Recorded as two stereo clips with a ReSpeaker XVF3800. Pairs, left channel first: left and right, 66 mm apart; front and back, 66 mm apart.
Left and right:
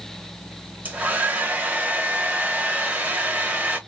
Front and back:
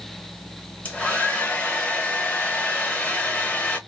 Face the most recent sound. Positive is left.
turn(degrees=-45)